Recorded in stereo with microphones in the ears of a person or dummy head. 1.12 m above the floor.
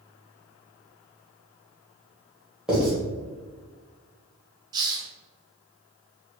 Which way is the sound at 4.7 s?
20° right (ahead or behind).